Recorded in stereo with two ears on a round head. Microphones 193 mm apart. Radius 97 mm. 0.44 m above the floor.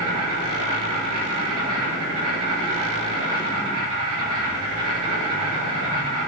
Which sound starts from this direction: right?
An insect, at 0.0 s.